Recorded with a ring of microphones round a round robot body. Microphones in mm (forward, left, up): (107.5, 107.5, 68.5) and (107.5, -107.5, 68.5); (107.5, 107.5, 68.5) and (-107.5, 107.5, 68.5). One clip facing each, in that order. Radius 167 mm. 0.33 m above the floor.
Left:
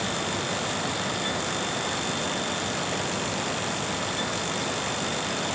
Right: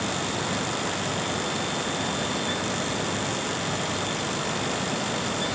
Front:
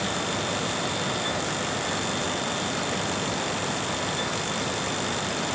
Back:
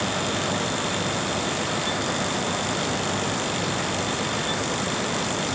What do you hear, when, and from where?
Only background noise.